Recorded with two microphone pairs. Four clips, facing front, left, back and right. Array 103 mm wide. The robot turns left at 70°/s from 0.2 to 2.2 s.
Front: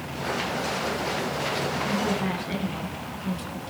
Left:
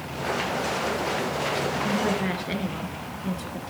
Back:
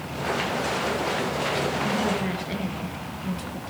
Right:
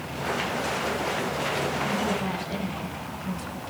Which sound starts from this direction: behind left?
A woman speaking, at 1.8 s.